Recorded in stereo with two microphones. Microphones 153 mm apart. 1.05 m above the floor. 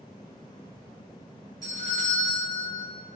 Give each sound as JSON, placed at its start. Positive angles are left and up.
{"t": 1.6, "sound": "a doorbell", "side_deg": 25, "distance_m": 1.7}